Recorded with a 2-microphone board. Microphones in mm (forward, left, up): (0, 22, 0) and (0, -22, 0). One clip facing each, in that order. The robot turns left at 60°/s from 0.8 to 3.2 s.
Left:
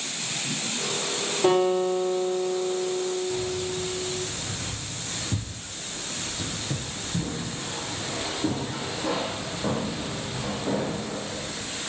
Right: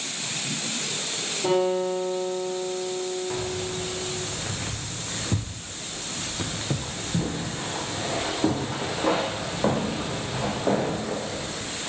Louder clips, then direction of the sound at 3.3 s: Left 1 dB; 50° right (ahead or behind).